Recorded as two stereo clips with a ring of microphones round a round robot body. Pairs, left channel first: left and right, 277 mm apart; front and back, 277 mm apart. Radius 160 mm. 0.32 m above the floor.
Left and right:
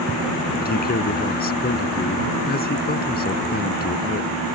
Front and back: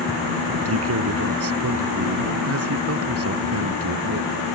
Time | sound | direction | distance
0.6 | a man speaking | 145° left | ?